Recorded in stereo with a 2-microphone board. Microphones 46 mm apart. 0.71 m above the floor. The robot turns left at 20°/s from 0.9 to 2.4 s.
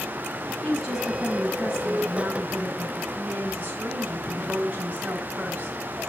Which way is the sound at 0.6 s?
5° right.